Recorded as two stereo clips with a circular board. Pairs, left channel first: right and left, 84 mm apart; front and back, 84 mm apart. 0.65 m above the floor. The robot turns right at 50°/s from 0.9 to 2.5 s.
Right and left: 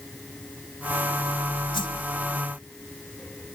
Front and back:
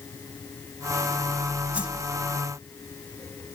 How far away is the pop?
I don't hear a pop.